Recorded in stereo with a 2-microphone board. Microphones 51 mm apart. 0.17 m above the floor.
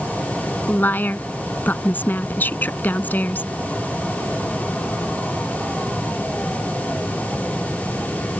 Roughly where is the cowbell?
I don't hear a cowbell.